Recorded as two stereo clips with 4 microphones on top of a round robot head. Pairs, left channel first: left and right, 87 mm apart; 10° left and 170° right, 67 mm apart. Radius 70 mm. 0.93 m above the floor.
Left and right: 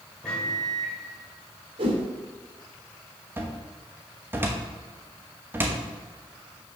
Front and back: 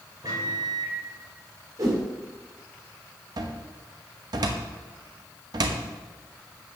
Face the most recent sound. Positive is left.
turn(degrees=-155)